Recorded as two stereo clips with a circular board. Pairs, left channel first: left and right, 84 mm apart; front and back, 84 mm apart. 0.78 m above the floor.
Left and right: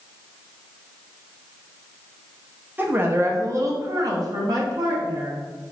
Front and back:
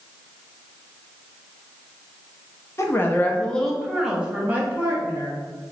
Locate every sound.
2.8 s a woman speaking: 35° right, 0.8 m; by 5.4 s 130° right, 1.3 m